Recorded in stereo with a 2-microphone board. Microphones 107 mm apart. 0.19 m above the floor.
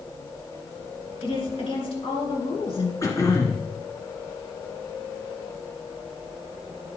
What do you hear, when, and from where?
1.2 s a woman speaking: 55° left (ahead or behind), 3 m
3.0 s throat clearing: 30° left (ahead or behind), 1.9 m